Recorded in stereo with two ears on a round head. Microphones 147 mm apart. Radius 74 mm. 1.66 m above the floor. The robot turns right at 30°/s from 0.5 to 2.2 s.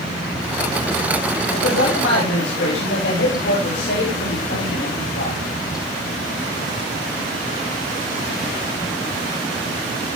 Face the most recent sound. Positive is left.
turn(degrees=85)